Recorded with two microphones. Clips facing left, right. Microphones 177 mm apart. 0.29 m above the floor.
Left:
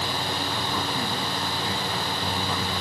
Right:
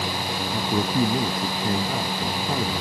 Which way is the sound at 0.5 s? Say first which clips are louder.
Right 6 dB; 45° right (ahead or behind).